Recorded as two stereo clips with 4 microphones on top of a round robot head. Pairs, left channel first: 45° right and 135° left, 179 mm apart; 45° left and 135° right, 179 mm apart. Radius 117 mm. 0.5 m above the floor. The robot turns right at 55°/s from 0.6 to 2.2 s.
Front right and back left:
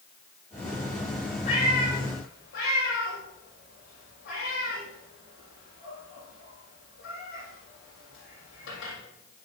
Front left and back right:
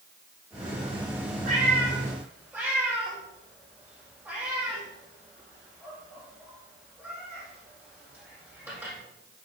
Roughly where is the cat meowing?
Right.